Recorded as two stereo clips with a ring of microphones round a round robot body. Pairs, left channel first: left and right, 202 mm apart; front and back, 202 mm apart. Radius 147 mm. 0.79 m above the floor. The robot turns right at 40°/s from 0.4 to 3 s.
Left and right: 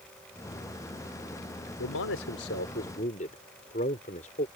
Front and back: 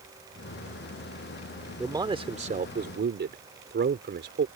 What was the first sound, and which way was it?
A man speaking, 105° left.